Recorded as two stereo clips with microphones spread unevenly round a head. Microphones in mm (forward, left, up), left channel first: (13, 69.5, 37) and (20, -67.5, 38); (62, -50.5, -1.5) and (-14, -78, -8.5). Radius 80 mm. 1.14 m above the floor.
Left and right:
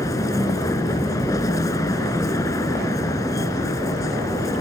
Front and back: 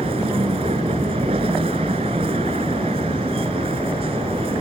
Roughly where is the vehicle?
Behind.